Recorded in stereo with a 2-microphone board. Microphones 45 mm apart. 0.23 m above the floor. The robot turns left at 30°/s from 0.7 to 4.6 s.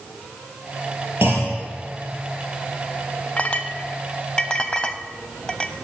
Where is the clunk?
55° right (ahead or behind), 5 m; by 1.6 s 45° right (ahead or behind), 5 m.